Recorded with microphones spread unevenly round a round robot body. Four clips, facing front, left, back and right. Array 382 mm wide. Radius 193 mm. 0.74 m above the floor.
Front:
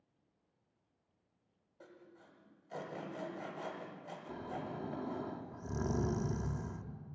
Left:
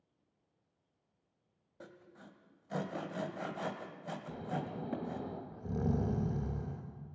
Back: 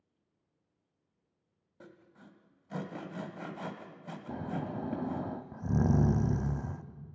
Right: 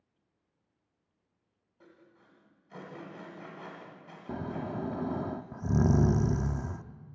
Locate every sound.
1.8 s sawing: 145° left, 1.7 m
4.3 s snoring: 110° right, 0.7 m